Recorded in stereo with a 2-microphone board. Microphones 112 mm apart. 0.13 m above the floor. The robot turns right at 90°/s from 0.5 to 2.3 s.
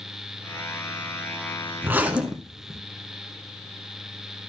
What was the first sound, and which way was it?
A zipper, 20° right (ahead or behind).